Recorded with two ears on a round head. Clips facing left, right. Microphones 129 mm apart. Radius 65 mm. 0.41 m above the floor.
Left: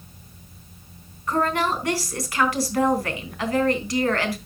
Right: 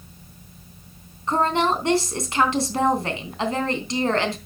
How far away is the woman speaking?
About 3 m.